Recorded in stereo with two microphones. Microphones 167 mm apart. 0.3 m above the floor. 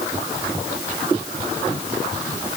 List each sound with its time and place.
Only background noise.